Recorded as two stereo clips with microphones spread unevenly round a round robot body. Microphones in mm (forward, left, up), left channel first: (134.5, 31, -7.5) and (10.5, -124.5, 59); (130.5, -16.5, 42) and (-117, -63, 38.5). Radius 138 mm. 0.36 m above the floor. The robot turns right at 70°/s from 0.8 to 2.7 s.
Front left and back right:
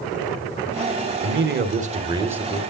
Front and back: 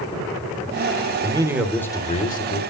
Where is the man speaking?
110° right, 1.9 m; by 2.6 s 15° right, 1.9 m.